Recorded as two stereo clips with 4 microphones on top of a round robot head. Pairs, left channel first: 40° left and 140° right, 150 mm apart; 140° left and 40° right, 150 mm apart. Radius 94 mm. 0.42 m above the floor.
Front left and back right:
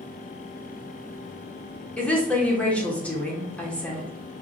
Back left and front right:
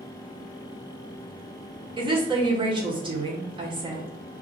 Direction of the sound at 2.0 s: 30° right.